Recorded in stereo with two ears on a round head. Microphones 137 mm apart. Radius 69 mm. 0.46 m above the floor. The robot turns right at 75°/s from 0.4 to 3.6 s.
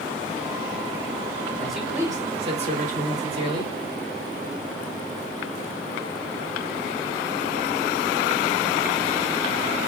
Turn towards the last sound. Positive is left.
turn(degrees=-40)